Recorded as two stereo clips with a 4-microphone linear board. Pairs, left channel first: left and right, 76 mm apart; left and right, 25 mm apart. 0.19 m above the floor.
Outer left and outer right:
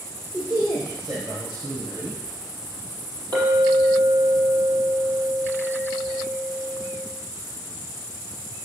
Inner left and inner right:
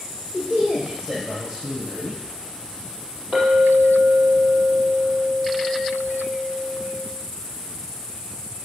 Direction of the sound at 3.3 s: 55° right (ahead or behind).